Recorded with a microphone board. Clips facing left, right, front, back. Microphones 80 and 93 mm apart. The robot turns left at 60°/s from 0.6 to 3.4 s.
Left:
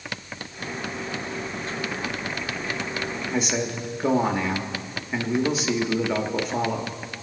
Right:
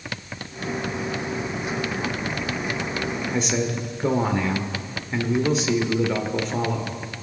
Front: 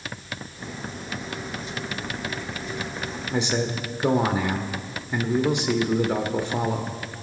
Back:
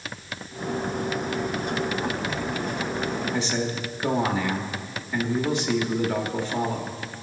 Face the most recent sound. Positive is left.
turn(degrees=5)